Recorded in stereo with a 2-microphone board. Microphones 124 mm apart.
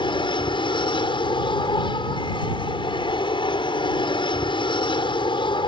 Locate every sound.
0.0 s an aircraft: 40° left (ahead or behind)